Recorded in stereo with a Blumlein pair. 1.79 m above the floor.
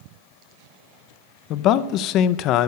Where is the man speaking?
35° left, 0.6 m.